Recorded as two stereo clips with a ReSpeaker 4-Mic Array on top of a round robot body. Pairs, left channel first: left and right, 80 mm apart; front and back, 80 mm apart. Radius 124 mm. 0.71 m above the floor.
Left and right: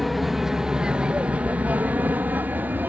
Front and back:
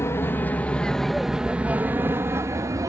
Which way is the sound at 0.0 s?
Straight ahead.